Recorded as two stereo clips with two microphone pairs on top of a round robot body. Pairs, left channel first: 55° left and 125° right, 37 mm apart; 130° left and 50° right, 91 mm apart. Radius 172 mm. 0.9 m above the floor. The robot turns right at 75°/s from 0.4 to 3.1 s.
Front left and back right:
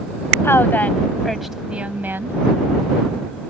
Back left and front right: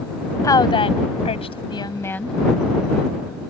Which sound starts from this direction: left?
A woman speaking, at 0.4 s.